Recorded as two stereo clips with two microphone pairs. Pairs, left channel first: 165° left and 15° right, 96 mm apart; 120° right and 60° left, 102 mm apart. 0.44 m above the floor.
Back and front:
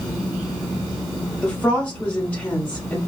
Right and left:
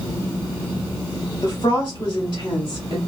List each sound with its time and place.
1.4 s a woman speaking: 130° right, 1.3 m